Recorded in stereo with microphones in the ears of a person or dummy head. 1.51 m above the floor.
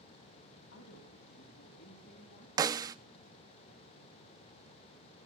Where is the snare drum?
20° right (ahead or behind), 0.6 m.